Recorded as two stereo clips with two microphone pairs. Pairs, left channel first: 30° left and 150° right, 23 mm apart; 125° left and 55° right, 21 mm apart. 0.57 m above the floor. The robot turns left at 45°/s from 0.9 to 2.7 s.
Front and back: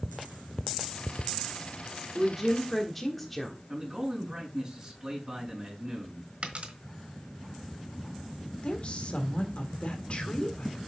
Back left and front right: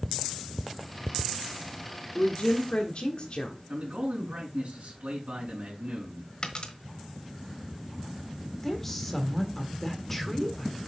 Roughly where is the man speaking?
Right.